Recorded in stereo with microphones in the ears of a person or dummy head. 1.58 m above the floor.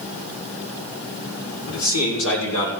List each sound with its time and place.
1.7 s a man speaking: 90° left, 4.5 m; by 2.7 s 85° left, 5.5 m